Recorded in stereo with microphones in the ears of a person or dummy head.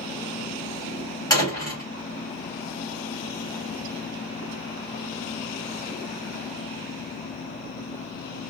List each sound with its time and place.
1.3 s a door slam: 25° left (ahead or behind), 2.5 m